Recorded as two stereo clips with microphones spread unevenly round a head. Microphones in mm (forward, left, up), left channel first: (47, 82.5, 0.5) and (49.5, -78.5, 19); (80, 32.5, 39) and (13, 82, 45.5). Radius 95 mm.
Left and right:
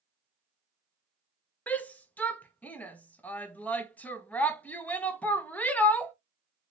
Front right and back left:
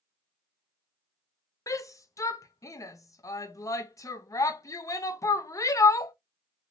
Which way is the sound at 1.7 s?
10° left.